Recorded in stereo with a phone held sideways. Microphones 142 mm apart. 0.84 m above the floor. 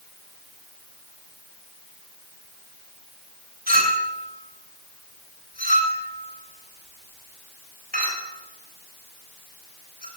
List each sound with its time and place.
3.7 s a clink: 75° right (ahead or behind), 3 m